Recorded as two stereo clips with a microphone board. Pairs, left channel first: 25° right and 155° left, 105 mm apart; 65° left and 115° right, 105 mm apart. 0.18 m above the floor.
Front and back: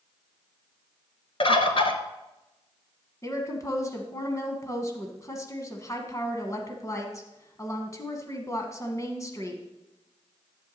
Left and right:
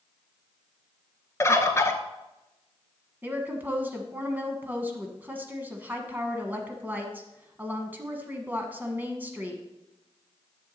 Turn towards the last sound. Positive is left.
turn(degrees=-55)